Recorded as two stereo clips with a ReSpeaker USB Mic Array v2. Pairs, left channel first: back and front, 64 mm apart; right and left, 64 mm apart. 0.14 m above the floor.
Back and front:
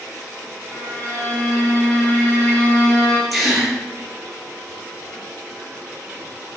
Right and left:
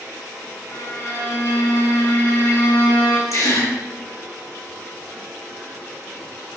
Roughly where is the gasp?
Right.